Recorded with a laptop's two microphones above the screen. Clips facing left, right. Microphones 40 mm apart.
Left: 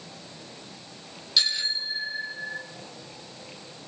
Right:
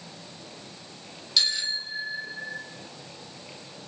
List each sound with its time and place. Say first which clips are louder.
1.4 s a bicycle bell: left 1 dB; 5° left (ahead or behind), 3.5 m